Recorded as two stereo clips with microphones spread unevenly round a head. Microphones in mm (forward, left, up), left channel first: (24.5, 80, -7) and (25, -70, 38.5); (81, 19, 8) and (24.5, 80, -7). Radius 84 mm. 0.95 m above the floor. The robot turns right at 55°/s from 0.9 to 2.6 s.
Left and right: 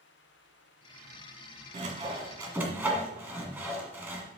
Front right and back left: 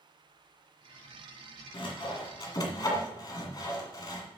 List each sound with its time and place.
1.7 s sawing: 65° right, 2 m; by 4.2 s 20° right, 2 m